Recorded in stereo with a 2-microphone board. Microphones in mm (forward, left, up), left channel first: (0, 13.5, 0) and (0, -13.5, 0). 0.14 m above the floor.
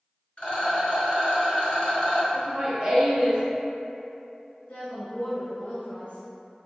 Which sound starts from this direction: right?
Laughter, at 2.3 s.